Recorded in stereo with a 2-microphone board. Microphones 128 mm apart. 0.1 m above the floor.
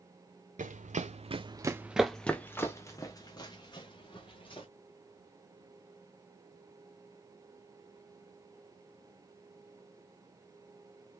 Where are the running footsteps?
80° right, 0.7 m; by 4.7 s 40° left (ahead or behind), 1.8 m.